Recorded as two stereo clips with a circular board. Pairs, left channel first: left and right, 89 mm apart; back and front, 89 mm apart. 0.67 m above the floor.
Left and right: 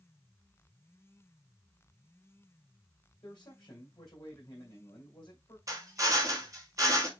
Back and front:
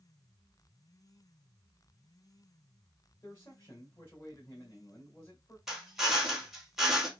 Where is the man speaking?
125° left, 2 m.